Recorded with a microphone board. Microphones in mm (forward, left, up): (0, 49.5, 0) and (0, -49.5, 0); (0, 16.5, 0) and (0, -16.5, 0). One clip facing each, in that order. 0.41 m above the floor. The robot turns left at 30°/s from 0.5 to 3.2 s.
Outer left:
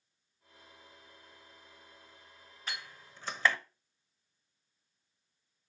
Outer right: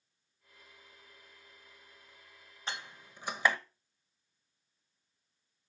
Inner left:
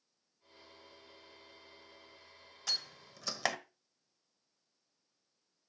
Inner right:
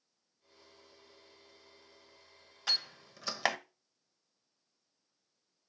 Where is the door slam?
30° right (ahead or behind), 1.1 m; by 3.6 s 15° right (ahead or behind), 1.1 m.